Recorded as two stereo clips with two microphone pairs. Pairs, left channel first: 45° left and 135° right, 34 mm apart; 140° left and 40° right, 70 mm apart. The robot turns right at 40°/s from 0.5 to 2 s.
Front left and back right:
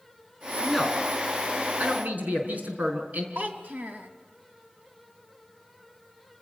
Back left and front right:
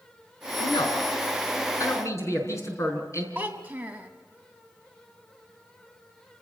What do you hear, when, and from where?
0.6 s a man speaking: 130° left, 5.5 m; by 3.2 s 175° right, 5.5 m
3.4 s a child speaking: 105° right, 2.5 m